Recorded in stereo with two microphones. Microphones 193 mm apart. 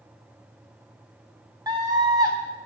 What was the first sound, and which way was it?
A scream, 20° right (ahead or behind).